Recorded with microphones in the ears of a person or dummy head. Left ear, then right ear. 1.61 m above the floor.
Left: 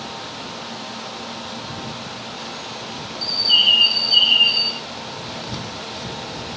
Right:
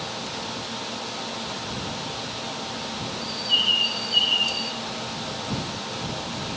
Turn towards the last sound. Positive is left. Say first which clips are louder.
# left 7 dB
turn(degrees=35)  # may be behind; listen again after turning